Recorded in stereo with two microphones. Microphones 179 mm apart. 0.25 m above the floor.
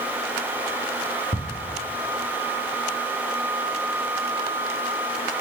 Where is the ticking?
55° left (ahead or behind), 1.2 m.